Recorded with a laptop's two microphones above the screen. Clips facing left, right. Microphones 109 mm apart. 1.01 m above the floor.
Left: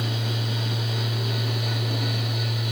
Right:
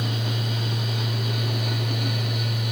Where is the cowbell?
I don't hear a cowbell.